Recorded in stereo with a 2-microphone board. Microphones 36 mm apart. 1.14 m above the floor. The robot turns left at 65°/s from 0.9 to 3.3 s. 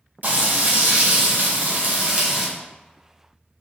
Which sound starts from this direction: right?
Frying, at 0.2 s.